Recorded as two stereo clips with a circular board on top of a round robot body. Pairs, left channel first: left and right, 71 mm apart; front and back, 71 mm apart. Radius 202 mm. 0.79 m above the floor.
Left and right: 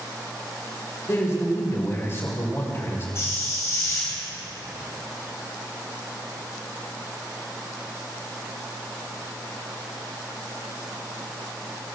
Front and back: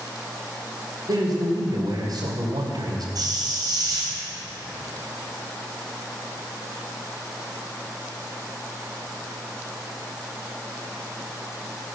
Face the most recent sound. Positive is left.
turn(degrees=150)